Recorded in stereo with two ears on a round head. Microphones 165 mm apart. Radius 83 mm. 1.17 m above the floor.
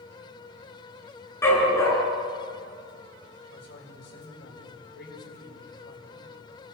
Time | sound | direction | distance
1.4 | a dog barking | 15° left (ahead or behind) | 8 m
3.5 | a man speaking | 55° left (ahead or behind) | 6 m